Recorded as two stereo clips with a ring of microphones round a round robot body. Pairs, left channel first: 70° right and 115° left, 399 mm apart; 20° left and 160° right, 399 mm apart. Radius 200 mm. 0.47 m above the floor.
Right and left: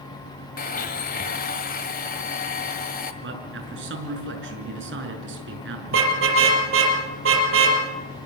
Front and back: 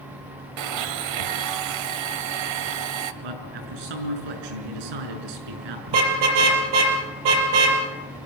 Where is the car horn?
175° left, 5 m.